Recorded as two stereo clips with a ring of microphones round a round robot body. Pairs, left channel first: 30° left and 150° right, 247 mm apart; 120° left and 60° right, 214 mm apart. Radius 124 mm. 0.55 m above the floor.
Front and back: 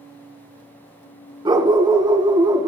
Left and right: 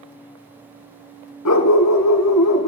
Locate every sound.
1.4 s a dog barking: 135° left, 2.5 m